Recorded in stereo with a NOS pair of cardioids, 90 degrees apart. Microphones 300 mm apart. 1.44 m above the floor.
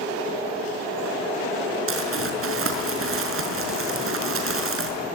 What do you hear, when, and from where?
1.9 s crumpling: 45° right, 5 m